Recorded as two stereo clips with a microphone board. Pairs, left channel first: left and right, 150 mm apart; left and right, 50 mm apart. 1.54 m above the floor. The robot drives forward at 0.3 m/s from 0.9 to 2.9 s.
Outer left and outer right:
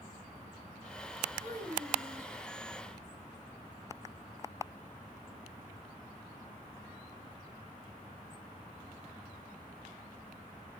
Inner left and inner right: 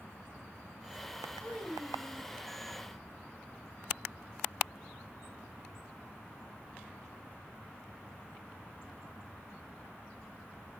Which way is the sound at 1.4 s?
75° right (ahead or behind).